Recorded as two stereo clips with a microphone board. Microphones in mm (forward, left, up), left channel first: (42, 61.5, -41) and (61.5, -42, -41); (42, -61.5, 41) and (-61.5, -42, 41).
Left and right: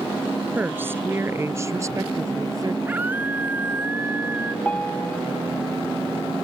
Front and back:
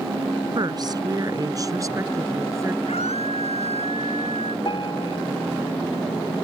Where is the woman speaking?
150° right; by 2.8 s 130° right.